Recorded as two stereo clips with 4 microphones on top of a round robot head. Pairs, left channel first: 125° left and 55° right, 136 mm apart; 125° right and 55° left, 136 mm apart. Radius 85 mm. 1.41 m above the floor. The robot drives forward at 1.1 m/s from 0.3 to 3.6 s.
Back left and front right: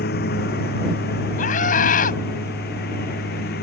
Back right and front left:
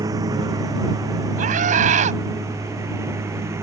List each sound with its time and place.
0.0 s a lawn mower: 120° left; by 3.6 s 125° left
1.4 s a scream: 90° left; by 2.2 s 95° left